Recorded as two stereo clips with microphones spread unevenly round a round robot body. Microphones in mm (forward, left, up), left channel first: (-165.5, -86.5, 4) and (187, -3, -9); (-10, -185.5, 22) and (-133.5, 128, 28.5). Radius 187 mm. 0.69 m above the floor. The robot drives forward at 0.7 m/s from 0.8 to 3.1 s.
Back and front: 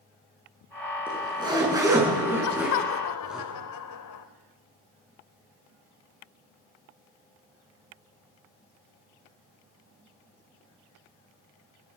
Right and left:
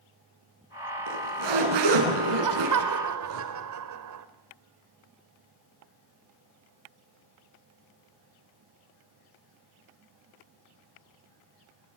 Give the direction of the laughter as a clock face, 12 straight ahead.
7 o'clock.